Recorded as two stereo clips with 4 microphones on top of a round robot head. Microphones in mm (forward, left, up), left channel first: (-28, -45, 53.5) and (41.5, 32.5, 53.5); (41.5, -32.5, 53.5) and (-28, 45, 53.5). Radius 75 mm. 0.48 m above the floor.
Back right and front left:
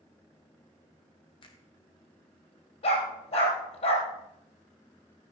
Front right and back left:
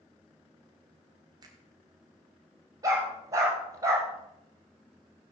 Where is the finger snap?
175° right, 2.5 m.